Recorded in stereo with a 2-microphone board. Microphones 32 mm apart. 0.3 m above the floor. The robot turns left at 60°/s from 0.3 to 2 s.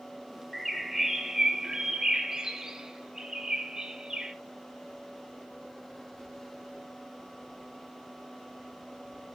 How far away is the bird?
About 1.2 m.